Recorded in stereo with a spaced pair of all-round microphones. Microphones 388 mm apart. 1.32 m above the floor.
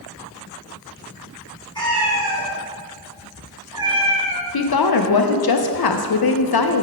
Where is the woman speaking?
70° left (ahead or behind), 0.5 m.